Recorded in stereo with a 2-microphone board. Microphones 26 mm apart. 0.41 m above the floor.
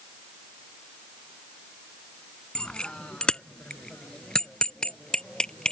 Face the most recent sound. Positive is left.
turn(degrees=30)  # may be behind; listen again after turning